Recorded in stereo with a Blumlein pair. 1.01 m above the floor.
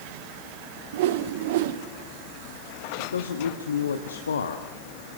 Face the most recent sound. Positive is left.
turn(degrees=70)